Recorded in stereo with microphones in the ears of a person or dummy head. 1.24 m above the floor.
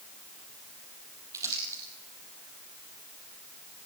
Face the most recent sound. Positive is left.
turn(degrees=-20)  # may be behind; listen again after turning